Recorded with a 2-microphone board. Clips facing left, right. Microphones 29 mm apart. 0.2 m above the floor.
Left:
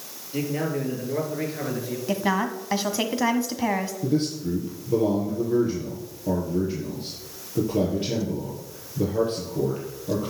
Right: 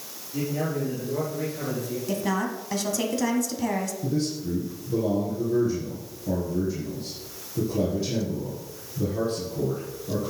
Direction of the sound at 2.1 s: 30° left (ahead or behind).